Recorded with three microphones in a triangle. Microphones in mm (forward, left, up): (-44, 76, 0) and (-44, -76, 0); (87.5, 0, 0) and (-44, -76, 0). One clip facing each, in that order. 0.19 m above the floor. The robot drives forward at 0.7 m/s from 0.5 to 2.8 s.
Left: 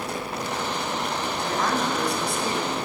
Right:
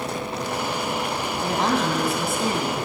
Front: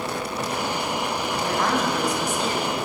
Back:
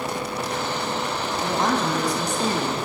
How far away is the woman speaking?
About 1.1 m.